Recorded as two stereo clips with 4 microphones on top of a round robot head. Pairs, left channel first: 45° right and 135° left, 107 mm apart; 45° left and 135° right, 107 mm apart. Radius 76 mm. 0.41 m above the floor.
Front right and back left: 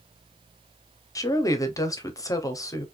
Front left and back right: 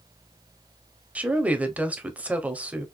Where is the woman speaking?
65° right, 0.9 m.